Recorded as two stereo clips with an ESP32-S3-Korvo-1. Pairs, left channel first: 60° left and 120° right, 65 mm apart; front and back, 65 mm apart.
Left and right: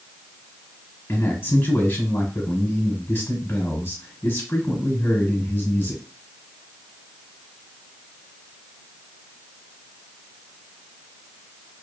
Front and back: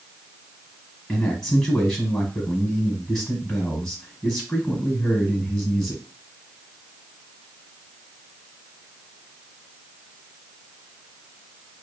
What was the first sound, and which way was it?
A man speaking, 75° left.